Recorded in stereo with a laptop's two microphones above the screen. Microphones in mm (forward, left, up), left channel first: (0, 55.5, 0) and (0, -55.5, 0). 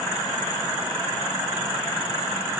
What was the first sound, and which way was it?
Only background noise.